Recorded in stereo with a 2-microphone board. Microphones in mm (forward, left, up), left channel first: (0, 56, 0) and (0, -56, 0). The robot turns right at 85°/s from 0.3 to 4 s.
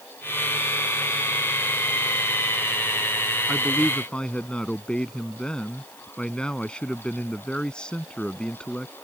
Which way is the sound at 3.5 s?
10° right (ahead or behind).